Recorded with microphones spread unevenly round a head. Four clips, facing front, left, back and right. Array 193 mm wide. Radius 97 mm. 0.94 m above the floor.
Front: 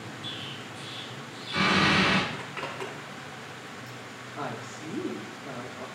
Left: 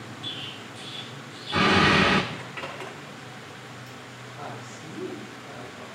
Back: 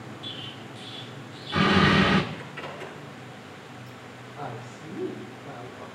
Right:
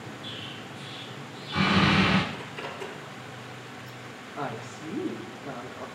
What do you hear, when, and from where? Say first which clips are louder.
0.2 s an explosion: even, even; 125° left, 1.4 m
2.3 s a zipper: left 1 dB, front 1 dB; 30° left, 5.5 m
4.3 s a woman speaking: right 5 dB, front 2 dB; 45° right, 2.5 m